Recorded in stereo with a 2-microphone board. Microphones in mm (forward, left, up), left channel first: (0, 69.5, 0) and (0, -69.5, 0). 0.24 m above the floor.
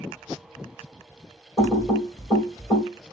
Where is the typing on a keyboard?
20° left (ahead or behind), 1.5 m.